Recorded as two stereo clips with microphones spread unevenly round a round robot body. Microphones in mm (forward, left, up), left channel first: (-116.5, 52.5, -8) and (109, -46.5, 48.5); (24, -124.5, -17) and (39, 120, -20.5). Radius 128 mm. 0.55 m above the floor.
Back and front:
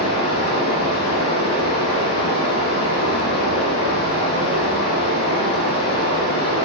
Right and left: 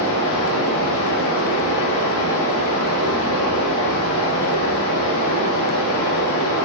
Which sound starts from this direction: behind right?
Running water, at 0.0 s.